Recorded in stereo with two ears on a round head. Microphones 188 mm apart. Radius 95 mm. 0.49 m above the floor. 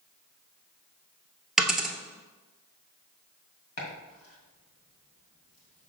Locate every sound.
1.6 s a dropped coin: centre (ahead or behind), 0.8 m
3.8 s chopping: 45° left (ahead or behind), 2 m